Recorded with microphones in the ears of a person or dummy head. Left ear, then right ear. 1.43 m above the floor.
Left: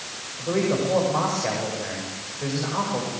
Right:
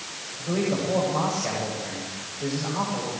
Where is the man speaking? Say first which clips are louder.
Left 3 dB; 45° left (ahead or behind), 7.5 m.